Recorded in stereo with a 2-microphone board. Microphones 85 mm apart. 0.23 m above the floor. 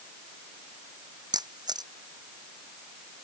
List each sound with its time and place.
1.3 s a camera shutter: 55° right (ahead or behind)